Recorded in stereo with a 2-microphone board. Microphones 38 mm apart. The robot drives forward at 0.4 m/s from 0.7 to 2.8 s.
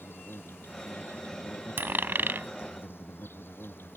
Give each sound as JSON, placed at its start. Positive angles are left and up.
{"t": 0.0, "sound": "an insect", "side_deg": 75}
{"t": 1.8, "sound": "a dropped coin", "side_deg": -65}